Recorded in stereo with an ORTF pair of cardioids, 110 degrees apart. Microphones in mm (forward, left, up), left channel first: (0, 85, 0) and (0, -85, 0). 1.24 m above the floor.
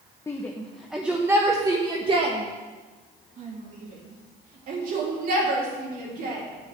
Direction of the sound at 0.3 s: 15° left.